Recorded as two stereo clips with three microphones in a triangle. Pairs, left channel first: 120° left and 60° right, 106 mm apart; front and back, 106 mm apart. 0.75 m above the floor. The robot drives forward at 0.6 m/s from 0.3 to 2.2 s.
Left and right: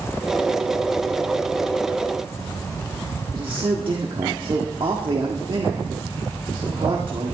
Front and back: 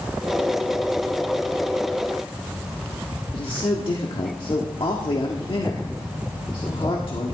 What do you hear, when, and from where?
3.3 s a man speaking: 30° right, 1.4 m